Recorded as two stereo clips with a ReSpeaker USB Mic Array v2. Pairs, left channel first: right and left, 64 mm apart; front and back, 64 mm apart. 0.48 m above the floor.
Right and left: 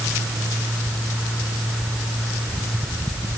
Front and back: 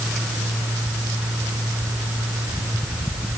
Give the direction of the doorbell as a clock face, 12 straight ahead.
No doorbell in this recording.